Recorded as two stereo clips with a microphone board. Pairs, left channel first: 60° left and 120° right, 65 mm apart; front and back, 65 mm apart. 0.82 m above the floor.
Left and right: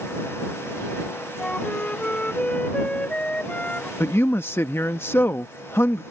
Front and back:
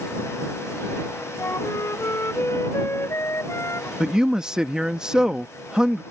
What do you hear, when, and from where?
1.4 s a flute: straight ahead
4.0 s a man speaking: 105° left